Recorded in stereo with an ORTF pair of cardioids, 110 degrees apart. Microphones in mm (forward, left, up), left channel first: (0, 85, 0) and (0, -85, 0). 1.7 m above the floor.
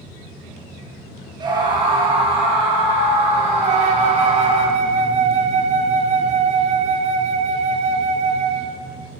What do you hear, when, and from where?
1.4 s a scream: 25° right, 1.7 m; by 4.6 s 35° right, 3.5 m
3.6 s a flute: 40° right, 0.5 m